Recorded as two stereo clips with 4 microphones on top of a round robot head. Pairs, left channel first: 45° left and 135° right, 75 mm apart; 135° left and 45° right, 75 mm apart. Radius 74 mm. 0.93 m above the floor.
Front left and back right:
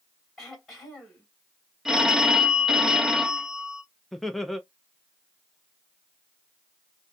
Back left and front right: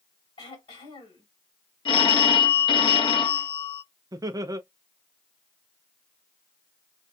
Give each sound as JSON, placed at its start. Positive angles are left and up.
{"t": 0.4, "sound": "throat clearing", "azimuth_deg": 135, "distance_m": 3.0}
{"t": 1.9, "sound": "a phone ringing", "azimuth_deg": 140, "distance_m": 0.7}
{"t": 4.1, "sound": "laughter", "azimuth_deg": -45, "distance_m": 0.6}